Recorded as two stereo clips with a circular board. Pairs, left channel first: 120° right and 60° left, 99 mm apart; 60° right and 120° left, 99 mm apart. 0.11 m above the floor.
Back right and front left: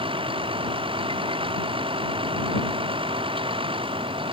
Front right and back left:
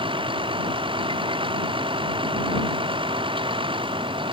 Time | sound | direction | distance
0.0 | a vehicle | 90° left | ?